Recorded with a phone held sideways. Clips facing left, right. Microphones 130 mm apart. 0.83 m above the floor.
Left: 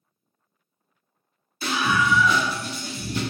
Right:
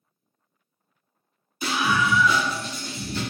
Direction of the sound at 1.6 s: 15° right (ahead or behind).